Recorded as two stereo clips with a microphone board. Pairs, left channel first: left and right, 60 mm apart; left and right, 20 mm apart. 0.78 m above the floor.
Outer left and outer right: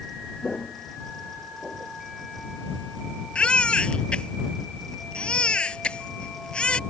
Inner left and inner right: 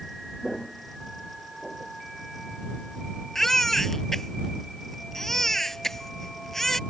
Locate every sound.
0.4 s footsteps: 15° left (ahead or behind); by 1.9 s 15° right (ahead or behind)
3.4 s a baby crying: 20° left (ahead or behind)